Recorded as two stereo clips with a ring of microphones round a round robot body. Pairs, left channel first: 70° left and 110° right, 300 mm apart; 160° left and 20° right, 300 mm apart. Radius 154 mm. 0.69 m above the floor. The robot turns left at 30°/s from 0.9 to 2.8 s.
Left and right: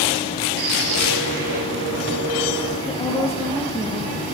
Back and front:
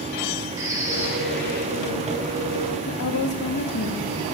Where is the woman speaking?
145° left, 1.0 m.